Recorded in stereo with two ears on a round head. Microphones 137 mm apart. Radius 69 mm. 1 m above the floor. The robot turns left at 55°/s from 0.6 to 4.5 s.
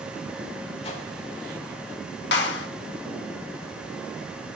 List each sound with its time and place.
0.8 s a whoosh: 40° left (ahead or behind), 3.5 m; by 1.1 s 55° left (ahead or behind), 3.5 m
2.3 s a clap: 85° left, 2.5 m; by 2.7 s 75° left (ahead or behind), 2.5 m